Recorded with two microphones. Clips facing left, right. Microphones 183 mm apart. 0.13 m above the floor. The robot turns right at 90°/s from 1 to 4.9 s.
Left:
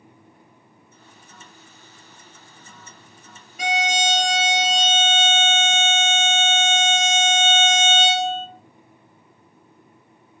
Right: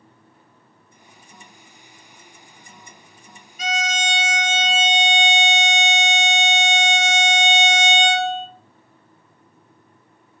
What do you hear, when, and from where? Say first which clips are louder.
3.6 s a violin: left 3 dB; 80° left, 0.5 m; by 8.5 s 165° right, 0.5 m